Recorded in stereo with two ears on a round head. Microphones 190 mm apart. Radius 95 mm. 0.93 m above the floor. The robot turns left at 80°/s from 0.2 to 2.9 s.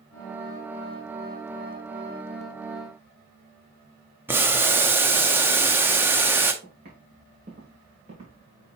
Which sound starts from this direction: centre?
Boiling, at 4.3 s.